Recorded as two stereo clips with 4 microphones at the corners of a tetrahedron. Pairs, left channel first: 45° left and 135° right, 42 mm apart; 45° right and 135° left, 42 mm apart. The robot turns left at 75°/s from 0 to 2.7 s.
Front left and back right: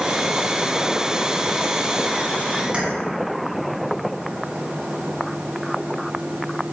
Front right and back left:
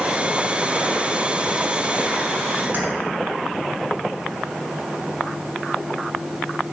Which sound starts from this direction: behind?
Keys jangling, at 2.7 s.